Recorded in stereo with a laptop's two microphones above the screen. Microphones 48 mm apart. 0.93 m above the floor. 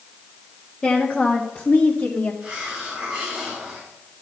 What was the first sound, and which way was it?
A woman speaking, 20° left (ahead or behind).